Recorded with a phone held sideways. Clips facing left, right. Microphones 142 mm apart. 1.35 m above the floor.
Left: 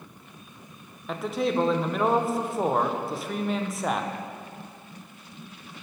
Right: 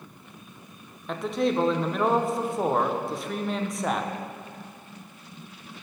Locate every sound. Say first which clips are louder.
1.1 s a man speaking: right 1 dB; centre (ahead or behind), 0.7 m